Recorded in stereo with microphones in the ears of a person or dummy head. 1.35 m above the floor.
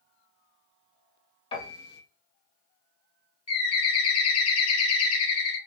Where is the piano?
30° left (ahead or behind), 1.1 m.